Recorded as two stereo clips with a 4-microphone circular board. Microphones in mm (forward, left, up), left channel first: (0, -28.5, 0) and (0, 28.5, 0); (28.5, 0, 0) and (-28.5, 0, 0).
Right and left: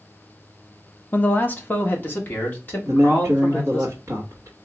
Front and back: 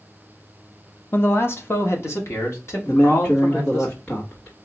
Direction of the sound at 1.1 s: 35° right.